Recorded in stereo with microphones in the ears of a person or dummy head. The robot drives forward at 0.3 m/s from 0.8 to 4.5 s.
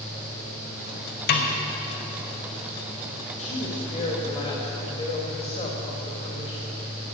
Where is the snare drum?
55° left (ahead or behind), 1.2 m; by 1.5 s 50° left (ahead or behind), 1.2 m.